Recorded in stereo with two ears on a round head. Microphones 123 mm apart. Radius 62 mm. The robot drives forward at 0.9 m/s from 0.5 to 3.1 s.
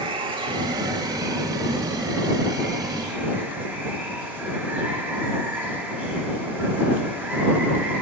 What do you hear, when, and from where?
0.0 s running water: 40° right (ahead or behind), 1.3 m; by 8.0 s 15° right (ahead or behind), 3.5 m